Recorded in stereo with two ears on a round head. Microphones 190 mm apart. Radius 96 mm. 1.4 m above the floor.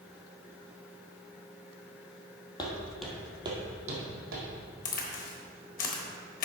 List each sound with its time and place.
2.6 s footsteps: 20° left (ahead or behind), 1.8 m; by 4.5 s 50° right (ahead or behind), 3 m
4.8 s a crack: 40° left (ahead or behind), 1.3 m